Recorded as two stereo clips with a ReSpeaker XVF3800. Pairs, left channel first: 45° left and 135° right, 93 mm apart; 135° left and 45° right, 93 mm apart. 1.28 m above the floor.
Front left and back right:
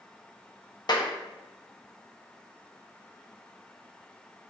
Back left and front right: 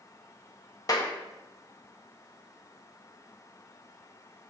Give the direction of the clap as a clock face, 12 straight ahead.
9 o'clock.